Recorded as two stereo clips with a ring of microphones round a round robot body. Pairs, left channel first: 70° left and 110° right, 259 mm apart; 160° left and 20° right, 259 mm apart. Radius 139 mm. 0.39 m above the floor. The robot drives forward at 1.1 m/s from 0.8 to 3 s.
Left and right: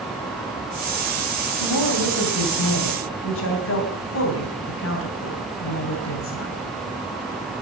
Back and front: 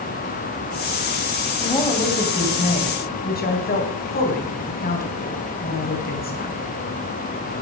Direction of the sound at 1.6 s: 75° left.